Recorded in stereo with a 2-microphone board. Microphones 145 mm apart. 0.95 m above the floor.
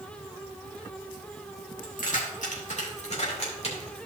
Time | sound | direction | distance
1.8 | keys jangling | 65° left (ahead or behind) | 2 m